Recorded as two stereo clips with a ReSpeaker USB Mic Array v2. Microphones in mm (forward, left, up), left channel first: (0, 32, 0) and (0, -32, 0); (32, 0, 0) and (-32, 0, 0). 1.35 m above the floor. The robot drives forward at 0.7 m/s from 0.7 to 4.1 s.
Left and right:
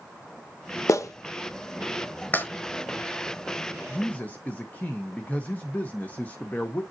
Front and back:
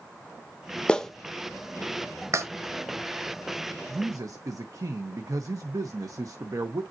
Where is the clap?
75° left, 0.7 m; by 2.5 s 150° left, 1.1 m.